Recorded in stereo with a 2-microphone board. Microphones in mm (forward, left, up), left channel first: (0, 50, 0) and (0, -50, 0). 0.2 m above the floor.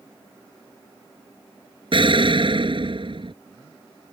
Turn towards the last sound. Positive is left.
turn(degrees=-60)  # may be behind; listen again after turning